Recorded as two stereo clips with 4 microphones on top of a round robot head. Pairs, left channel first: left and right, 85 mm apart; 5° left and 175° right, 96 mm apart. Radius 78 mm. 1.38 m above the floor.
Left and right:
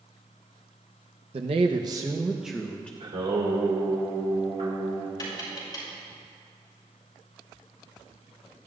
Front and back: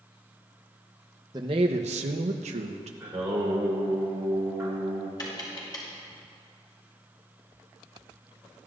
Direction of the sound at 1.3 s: 115° right.